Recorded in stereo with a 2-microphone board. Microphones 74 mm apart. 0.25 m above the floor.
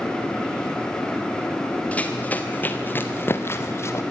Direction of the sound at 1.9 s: 20° left (ahead or behind).